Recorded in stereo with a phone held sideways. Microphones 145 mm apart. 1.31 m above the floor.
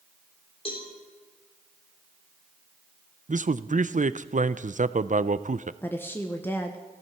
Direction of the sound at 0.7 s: 40° left (ahead or behind).